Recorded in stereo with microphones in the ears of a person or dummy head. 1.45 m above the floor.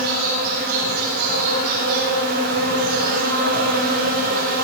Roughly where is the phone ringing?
No phone ringing in this recording.